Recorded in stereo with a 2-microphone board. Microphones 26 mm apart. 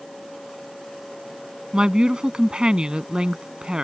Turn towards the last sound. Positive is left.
turn(degrees=-30)  # may be behind; listen again after turning